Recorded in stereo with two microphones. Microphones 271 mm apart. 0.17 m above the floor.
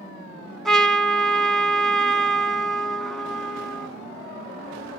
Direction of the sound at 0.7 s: Centre (ahead or behind).